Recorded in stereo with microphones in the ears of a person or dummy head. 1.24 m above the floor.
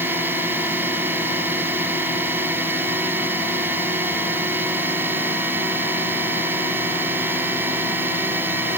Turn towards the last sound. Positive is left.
turn(degrees=-15)  # may be behind; listen again after turning